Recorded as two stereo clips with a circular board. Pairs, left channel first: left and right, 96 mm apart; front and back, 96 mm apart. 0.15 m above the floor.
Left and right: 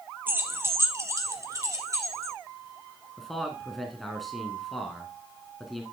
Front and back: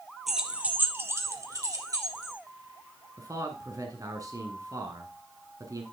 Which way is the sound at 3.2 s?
Straight behind.